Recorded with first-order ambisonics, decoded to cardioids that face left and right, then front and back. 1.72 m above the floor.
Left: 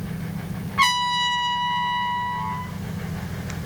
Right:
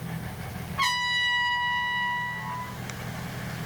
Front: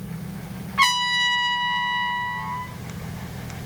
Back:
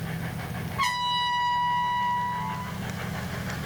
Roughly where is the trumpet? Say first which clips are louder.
Left 5 dB, front 6 dB; ahead left.